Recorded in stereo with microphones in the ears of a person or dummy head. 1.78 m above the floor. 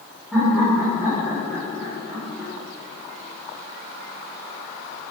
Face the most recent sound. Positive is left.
turn(degrees=-5)  # may be behind; listen again after turning